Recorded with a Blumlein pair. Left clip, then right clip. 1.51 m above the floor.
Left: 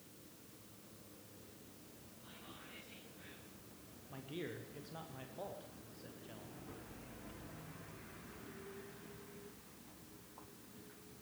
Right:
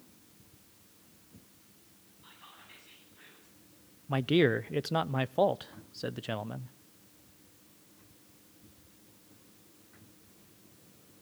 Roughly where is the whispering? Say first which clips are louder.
Right 3 dB; ahead right.